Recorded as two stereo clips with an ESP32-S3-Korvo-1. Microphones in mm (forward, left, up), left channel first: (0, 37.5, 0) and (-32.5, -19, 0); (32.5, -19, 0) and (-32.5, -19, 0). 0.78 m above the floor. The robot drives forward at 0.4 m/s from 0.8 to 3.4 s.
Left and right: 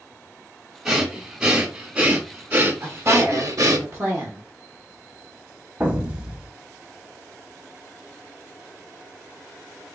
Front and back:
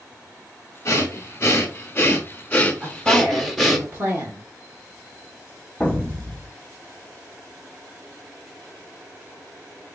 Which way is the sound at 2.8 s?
135° right.